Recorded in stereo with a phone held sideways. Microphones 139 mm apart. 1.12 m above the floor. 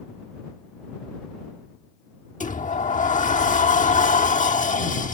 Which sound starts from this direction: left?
A sliding door, at 2.4 s.